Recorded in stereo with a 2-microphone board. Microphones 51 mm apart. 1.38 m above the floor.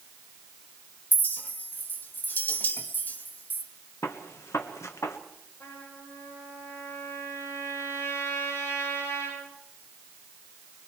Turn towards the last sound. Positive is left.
turn(degrees=60)  # may be behind; listen again after turning